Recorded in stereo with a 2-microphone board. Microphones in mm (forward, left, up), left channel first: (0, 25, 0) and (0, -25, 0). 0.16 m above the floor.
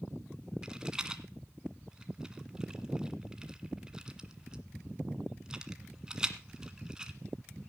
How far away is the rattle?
About 1.6 m.